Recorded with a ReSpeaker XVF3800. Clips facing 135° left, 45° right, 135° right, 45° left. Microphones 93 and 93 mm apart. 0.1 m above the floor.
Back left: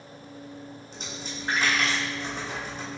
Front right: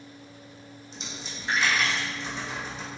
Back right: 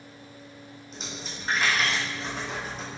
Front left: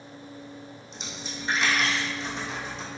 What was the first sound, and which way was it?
A dropped coin, 175° left.